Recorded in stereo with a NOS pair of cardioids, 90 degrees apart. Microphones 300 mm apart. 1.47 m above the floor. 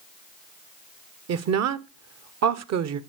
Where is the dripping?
I don't hear dripping.